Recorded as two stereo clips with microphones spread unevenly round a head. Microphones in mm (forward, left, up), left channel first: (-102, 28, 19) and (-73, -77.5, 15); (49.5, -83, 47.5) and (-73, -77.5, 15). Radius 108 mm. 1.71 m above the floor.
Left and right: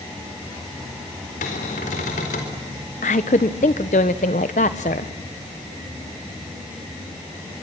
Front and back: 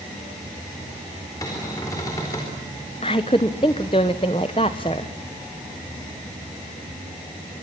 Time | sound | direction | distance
1.4 | a cupboard door | 70° left | 4 m
3.0 | a woman speaking | 60° left | 1.1 m